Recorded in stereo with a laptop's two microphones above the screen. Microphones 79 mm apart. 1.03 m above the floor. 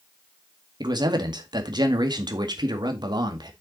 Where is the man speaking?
60° right (ahead or behind), 1.9 m.